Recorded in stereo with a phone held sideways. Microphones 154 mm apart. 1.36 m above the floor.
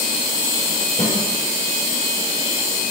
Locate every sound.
1.0 s a snare drum: 45° left (ahead or behind), 6.5 m